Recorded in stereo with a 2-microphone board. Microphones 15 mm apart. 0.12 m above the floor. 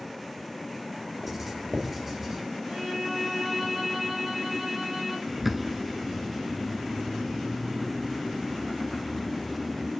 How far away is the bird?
About 0.9 m.